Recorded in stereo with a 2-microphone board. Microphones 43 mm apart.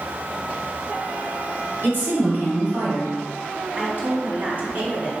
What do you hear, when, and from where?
1.8 s a woman speaking: 45° right (ahead or behind), 1.4 m
3.7 s a woman speaking: 30° right (ahead or behind), 1.8 m